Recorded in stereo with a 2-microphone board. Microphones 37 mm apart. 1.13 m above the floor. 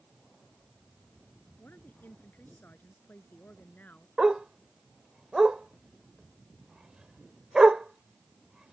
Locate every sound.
1.6 s a woman speaking: 55° left (ahead or behind); by 4.1 s 45° left (ahead or behind)
4.2 s a dog barking: 20° right (ahead or behind)